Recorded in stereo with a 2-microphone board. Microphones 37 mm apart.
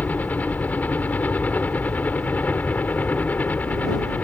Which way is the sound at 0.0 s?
45° left (ahead or behind).